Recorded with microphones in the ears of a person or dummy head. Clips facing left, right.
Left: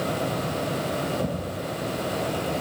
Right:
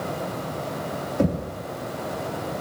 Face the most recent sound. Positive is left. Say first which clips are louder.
# right 5 dB
turn(degrees=-50)  # may be behind; listen again after turning